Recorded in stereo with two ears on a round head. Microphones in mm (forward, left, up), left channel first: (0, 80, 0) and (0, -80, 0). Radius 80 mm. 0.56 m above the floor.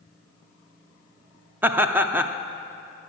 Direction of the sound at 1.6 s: 10° right (ahead or behind).